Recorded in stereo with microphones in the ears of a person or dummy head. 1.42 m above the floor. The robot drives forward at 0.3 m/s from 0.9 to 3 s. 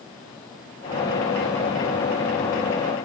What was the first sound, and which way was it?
Only background noise.